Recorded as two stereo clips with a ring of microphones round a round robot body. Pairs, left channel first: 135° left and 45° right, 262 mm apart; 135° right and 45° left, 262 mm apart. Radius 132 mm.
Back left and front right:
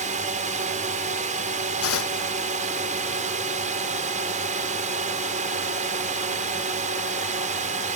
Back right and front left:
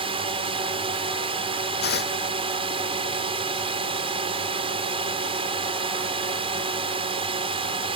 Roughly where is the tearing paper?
Behind.